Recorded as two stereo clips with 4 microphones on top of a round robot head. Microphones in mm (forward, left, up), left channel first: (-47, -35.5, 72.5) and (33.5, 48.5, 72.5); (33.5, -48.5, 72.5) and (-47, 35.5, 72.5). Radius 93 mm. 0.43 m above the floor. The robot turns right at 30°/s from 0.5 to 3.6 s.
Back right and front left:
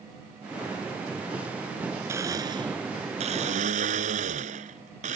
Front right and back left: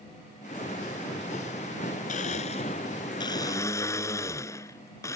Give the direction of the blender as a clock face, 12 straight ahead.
1 o'clock.